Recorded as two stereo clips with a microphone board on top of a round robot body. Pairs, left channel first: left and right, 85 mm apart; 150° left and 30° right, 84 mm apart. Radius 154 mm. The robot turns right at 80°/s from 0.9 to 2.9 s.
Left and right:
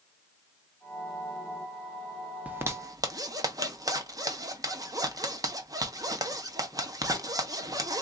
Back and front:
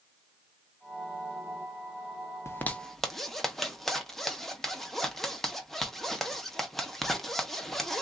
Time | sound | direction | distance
2.5 | a zipper | 160° right | 0.9 m